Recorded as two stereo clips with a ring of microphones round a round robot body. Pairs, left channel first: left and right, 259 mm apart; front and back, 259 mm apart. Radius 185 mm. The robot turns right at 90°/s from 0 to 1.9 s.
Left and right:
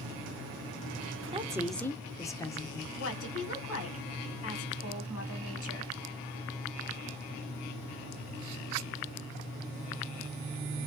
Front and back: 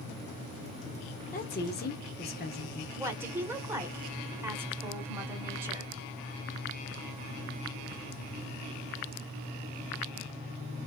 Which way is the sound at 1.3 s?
35° right.